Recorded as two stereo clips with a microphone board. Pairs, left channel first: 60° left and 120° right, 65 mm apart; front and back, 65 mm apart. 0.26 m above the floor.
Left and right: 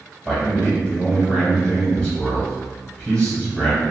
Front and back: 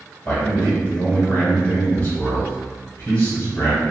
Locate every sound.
0.2 s a man speaking: 5° right, 1.7 m